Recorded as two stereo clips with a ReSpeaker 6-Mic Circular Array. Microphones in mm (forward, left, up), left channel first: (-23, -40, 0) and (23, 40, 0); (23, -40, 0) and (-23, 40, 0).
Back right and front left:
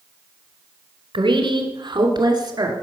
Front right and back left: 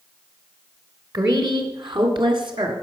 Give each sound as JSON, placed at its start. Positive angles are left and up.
{"t": 1.1, "sound": "a woman speaking", "azimuth_deg": 80, "distance_m": 2.5}